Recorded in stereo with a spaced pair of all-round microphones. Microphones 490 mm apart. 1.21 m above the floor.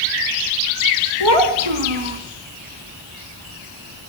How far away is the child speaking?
About 1.8 m.